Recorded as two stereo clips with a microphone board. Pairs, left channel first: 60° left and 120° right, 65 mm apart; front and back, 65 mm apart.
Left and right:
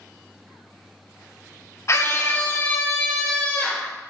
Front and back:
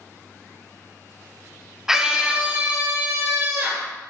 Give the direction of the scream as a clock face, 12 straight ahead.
9 o'clock.